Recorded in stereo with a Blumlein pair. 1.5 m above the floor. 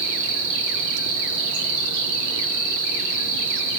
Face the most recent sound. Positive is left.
turn(degrees=-50)